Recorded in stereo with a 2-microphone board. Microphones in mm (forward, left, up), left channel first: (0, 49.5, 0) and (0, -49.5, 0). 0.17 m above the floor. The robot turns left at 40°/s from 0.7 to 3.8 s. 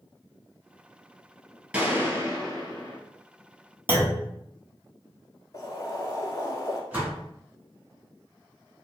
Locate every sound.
1.7 s a gunshot: 15° right, 1.2 m; by 3.0 s 65° right, 1.2 m
3.9 s a clunk: 25° right (ahead or behind), 0.8 m
5.5 s boiling: 35° left (ahead or behind), 0.8 m
6.9 s a door slam: 20° right (ahead or behind), 1.4 m